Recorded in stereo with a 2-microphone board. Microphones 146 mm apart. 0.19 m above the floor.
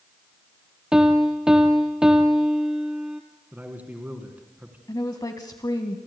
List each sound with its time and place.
0.9 s a piano: 5° right (ahead or behind), 1.0 m
3.5 s a man speaking: 10° right (ahead or behind), 2 m
4.9 s a woman speaking: 25° left (ahead or behind), 1.1 m